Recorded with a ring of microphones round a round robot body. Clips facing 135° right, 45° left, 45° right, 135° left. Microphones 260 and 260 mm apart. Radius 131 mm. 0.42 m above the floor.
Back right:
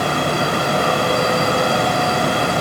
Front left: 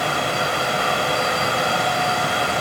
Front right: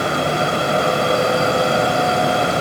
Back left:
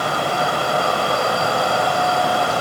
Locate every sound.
Only background noise.